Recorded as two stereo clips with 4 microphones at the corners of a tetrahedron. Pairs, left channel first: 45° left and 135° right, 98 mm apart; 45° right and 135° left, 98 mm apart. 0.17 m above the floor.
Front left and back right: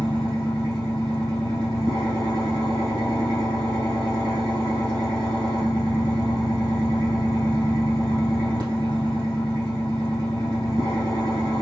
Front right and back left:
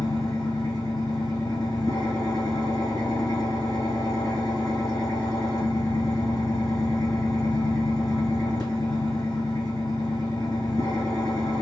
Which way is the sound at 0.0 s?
90° right.